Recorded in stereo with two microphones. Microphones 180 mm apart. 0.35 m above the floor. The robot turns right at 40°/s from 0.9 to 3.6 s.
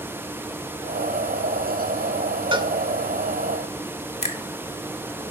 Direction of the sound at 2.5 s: 30° right (ahead or behind).